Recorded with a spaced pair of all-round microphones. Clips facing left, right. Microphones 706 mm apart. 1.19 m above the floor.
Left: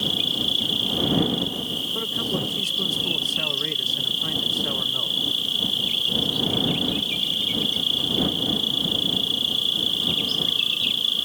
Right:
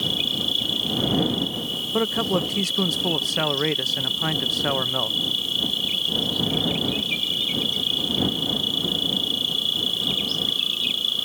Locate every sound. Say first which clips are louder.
0.0 s an insect: even; 30° left (ahead or behind)
1.9 s a man speaking: right 7 dB; 80° right